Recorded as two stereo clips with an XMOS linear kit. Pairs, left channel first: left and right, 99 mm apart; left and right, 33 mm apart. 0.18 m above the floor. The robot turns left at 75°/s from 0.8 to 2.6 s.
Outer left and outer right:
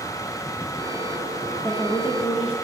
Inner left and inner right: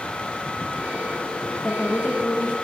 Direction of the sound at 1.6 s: 145° left.